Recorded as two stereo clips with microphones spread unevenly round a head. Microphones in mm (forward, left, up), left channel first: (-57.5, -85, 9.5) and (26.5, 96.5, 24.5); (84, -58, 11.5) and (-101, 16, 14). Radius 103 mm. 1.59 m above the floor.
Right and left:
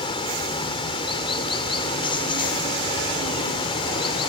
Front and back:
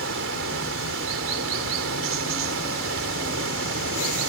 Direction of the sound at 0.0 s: Straight behind.